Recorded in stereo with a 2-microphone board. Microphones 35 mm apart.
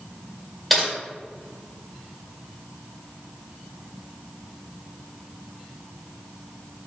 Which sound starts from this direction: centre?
Typing on a keyboard, at 0.7 s.